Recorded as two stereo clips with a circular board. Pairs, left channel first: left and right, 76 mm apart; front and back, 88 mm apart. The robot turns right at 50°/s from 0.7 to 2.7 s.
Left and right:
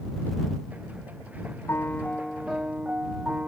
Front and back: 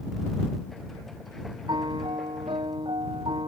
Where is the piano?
145° left; by 3.5 s 165° right.